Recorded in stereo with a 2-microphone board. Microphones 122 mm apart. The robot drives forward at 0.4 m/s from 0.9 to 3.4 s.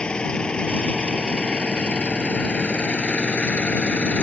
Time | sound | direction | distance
0.0 | an engine running | 10° left (ahead or behind) | ?